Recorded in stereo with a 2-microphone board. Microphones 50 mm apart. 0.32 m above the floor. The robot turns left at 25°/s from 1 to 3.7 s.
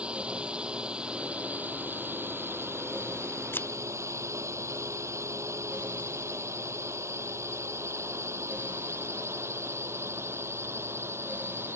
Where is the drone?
20° right (ahead or behind); by 11.8 s 55° right (ahead or behind).